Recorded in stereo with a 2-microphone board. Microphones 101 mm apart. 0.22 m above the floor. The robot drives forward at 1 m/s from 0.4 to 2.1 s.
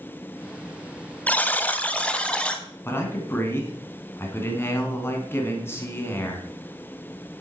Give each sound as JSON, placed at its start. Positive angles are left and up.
{"t": 1.3, "sound": "a buzzer", "side_deg": 15, "distance_m": 0.7}
{"t": 2.9, "sound": "a man speaking", "side_deg": 25, "distance_m": 2.0}